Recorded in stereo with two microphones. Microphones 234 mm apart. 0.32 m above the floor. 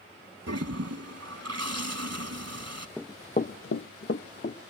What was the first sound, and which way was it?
A toilet flushing, 75° right (ahead or behind).